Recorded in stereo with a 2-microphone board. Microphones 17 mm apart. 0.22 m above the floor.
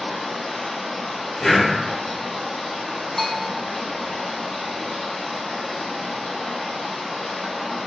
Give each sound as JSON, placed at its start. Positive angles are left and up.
{"t": 0.0, "sound": "running water", "side_deg": 85, "distance_m": 1.8}
{"t": 1.4, "sound": "breathing", "side_deg": 40, "distance_m": 1.1}
{"t": 3.2, "sound": "a bell", "side_deg": 25, "distance_m": 0.8}